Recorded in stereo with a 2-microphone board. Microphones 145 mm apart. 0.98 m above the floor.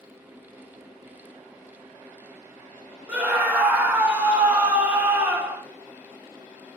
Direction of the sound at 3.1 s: 10° right (ahead or behind).